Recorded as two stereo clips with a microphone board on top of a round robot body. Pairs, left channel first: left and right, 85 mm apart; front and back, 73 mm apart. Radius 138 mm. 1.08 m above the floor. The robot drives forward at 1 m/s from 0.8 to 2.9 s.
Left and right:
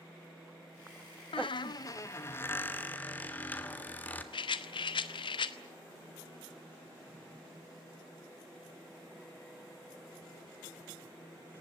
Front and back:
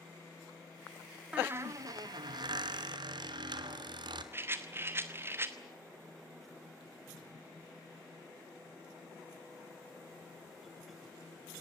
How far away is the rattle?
About 1.0 m.